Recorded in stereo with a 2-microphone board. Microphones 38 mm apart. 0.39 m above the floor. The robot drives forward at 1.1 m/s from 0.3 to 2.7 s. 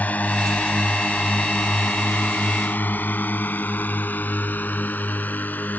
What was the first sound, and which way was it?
A drone, 45° left (ahead or behind).